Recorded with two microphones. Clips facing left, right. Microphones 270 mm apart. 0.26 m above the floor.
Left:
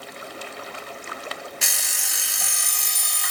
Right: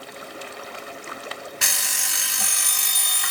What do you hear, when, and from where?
1.6 s an alarm clock: 65° right (ahead or behind), 0.8 m